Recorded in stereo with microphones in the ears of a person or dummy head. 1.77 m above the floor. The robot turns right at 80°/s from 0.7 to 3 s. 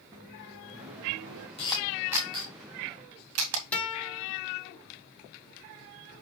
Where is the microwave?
155° right, 1.8 m; by 1.5 s 95° right, 1.8 m.